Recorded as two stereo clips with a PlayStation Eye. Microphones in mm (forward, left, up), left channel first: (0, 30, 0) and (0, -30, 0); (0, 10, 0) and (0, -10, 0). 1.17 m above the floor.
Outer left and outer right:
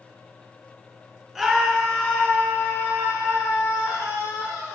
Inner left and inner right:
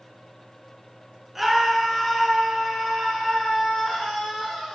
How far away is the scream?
About 1.6 m.